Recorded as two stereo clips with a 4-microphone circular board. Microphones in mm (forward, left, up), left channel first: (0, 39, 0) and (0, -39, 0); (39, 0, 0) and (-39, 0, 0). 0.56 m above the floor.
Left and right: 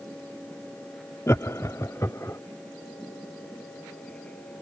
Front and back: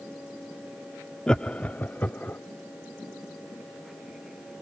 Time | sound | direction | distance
1.3 | laughter | 75° left | ?